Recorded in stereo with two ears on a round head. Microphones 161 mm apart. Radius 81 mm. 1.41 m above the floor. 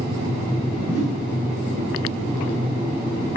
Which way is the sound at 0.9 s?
55° left (ahead or behind).